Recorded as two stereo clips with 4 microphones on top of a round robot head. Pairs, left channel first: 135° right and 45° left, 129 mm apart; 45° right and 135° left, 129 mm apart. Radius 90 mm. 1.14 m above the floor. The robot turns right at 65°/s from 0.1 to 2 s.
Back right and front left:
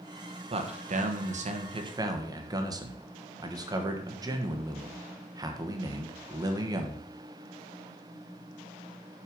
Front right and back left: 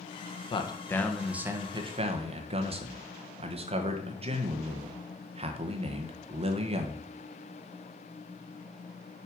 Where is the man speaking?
5° left, 1.5 m; by 7.1 s 100° left, 1.5 m.